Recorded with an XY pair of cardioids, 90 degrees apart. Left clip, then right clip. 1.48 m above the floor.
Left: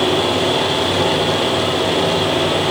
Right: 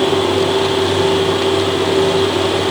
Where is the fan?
65° left, 2 m.